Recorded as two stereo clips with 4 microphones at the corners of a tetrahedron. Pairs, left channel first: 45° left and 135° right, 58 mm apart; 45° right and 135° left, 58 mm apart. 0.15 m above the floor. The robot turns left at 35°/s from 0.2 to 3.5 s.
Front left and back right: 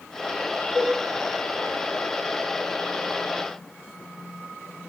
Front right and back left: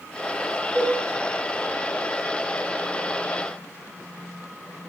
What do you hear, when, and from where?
0.8 s a cowbell: 160° right, 4.5 m; by 1.0 s 170° right, 4.5 m